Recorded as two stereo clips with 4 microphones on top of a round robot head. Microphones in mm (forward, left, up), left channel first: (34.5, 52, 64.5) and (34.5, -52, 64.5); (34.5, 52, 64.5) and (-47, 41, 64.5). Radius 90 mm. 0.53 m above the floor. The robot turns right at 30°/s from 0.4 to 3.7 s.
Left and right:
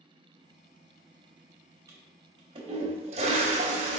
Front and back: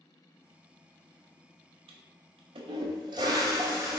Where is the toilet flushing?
160° right, 0.6 m; by 4.0 s 105° right, 0.6 m.